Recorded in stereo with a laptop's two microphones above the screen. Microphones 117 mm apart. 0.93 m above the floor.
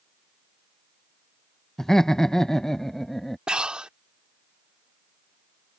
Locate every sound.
1.8 s laughter: 5° left (ahead or behind)
3.5 s breathing: 5° right (ahead or behind)